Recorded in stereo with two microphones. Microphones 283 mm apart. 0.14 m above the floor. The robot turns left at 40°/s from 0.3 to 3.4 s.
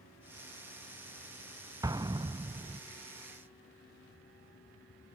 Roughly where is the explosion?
Centre.